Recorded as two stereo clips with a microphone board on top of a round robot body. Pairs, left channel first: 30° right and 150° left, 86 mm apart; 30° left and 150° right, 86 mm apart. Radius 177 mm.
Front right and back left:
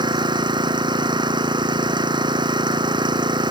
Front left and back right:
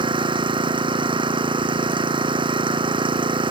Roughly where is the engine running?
Behind.